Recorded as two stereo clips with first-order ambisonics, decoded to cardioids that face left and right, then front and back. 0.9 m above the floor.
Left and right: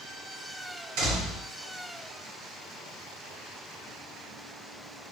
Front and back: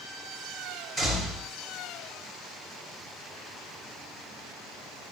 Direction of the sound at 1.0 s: 95° right.